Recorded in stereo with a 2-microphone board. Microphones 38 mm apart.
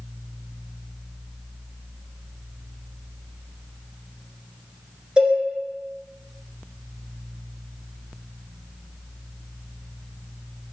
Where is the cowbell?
20° right (ahead or behind), 1.2 m.